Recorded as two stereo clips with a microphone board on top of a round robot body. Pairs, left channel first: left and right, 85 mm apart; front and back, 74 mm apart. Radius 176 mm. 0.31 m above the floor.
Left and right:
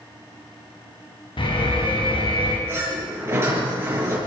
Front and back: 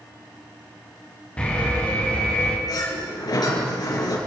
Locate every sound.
1.4 s an alarm: 75° left, 4 m
2.7 s a sliding door: 30° right, 7.5 m